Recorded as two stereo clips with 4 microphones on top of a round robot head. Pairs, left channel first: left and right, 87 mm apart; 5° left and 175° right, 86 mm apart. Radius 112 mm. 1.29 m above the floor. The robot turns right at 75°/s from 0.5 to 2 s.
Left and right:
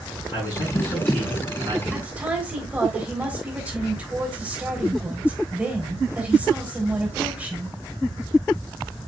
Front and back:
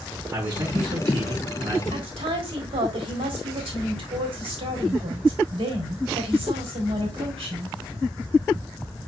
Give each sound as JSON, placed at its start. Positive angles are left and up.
{"t": 0.3, "sound": "a man speaking", "azimuth_deg": 125, "distance_m": 4.5}
{"t": 1.9, "sound": "a woman speaking", "azimuth_deg": -175, "distance_m": 3.5}